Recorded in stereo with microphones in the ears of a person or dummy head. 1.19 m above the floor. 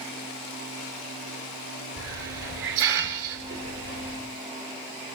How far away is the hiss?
About 3.5 m.